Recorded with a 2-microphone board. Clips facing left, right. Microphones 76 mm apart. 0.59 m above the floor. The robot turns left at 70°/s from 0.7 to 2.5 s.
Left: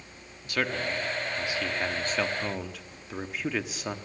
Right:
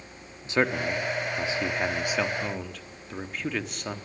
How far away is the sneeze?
No sneeze in this recording.